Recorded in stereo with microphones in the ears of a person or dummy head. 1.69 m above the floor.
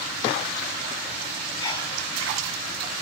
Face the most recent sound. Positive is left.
turn(degrees=25)  # may be behind; listen again after turning